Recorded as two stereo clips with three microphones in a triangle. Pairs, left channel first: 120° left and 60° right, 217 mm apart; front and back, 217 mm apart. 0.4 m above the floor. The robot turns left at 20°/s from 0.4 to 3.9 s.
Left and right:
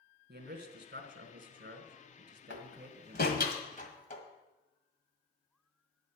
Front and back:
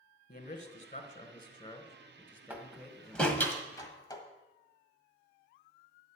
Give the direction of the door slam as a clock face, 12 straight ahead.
9 o'clock.